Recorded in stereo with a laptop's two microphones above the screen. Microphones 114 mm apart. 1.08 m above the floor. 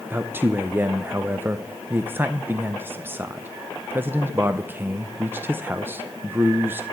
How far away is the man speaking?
About 0.5 m.